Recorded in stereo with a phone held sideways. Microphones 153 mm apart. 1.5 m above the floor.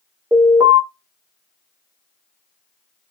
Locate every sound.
0.3 s an alarm: 25° right (ahead or behind), 1.2 m